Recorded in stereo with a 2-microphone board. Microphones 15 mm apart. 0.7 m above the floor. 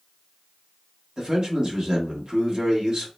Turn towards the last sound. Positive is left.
turn(degrees=-45)  # may be behind; listen again after turning